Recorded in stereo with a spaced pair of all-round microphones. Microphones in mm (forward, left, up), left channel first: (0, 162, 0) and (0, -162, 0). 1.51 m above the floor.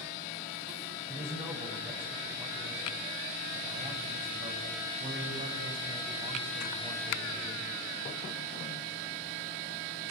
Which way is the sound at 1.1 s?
20° right (ahead or behind).